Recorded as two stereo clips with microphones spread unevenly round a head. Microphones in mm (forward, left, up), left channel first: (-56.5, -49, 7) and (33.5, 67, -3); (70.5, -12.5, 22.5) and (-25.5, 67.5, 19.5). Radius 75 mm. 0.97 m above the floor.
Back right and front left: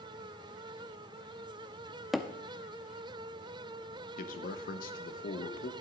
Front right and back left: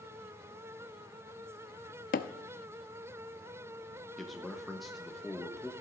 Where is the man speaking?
130° right, 1.2 m.